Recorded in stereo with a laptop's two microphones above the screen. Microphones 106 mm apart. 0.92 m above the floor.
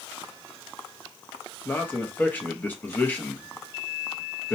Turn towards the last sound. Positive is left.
turn(degrees=15)  # may be behind; listen again after turning